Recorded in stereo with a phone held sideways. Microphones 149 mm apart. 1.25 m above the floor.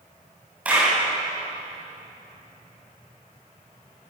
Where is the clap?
10° right (ahead or behind), 9 m.